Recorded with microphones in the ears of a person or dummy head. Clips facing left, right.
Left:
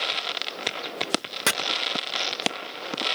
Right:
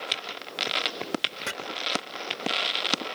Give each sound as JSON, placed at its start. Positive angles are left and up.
{"t": 1.5, "sound": "chopping", "side_deg": 70, "distance_m": 0.9}